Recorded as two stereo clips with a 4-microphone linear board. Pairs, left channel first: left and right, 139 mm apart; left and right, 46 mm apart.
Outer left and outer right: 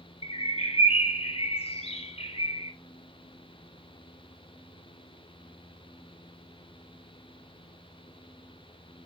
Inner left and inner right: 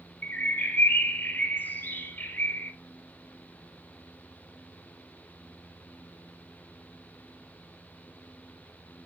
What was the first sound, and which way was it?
A bird, 45° left (ahead or behind).